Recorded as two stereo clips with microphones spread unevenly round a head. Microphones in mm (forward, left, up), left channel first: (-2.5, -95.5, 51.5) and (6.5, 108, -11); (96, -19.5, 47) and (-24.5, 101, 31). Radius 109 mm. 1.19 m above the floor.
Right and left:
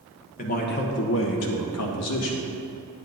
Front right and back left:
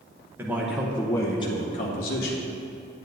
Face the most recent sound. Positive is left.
turn(degrees=-70)